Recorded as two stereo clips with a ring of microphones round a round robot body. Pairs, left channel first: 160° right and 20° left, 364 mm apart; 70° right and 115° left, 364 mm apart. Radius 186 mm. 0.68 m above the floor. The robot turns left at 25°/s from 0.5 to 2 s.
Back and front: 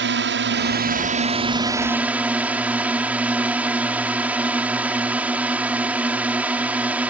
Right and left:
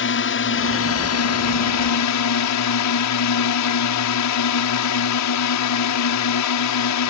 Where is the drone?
25° right; by 7.1 s 60° right.